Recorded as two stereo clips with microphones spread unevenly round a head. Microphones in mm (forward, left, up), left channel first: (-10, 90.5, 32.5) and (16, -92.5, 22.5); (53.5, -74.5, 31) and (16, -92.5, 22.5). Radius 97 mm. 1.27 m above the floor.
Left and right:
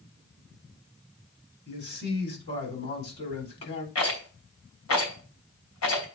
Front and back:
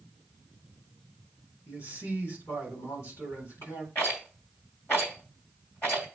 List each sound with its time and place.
1.7 s a man speaking: 65° left, 4 m
4.0 s a rattle: 105° left, 2.5 m